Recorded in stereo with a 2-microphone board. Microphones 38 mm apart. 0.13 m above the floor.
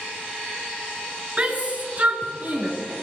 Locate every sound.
1.4 s a shout: 35° right (ahead or behind), 1.9 m; by 2.7 s 45° right (ahead or behind), 1.9 m